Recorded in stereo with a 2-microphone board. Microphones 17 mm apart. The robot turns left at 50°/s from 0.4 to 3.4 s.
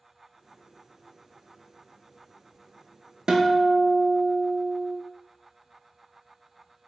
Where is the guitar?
55° right (ahead or behind), 0.5 m; by 5.0 s 60° right (ahead or behind), 0.5 m.